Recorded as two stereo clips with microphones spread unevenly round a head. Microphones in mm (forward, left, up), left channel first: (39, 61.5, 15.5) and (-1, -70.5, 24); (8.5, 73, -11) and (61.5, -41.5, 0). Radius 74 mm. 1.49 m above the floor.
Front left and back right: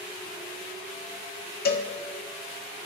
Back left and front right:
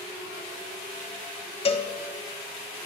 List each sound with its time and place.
1.6 s a cowbell: 75° left, 1.0 m